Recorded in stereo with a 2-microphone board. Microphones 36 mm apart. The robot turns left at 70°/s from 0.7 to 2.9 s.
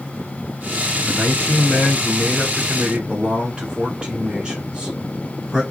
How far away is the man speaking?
About 1.6 m.